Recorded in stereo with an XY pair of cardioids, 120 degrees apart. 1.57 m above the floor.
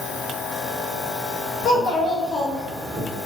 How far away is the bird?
No bird in this recording.